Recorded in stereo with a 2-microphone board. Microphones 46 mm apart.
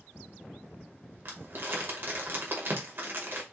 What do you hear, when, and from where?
1.2 s crumpling: 55° right (ahead or behind), 1.3 m